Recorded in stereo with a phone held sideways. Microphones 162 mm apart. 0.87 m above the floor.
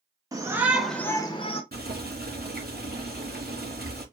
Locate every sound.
0.3 s a shout: 20° right (ahead or behind), 1.0 m; by 1.6 s 35° left (ahead or behind), 0.9 m
1.7 s boiling: 75° right (ahead or behind), 2.5 m